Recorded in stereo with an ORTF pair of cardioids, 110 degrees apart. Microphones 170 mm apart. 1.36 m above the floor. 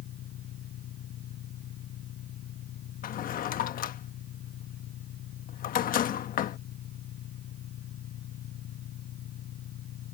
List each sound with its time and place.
0.0 s an engine running: 65° left
3.0 s a drawer: 55° left